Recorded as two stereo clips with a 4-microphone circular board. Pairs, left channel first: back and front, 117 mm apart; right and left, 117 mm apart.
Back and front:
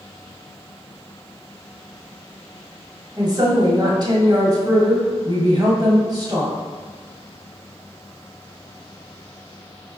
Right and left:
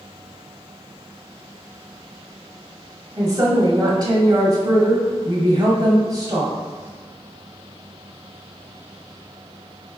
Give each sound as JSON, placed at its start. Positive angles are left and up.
{"t": 3.2, "sound": "a woman speaking", "azimuth_deg": 45, "distance_m": 1.6}